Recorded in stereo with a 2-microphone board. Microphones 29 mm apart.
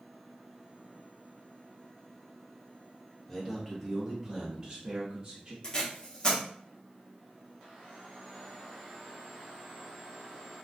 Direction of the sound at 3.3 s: 5° left (ahead or behind).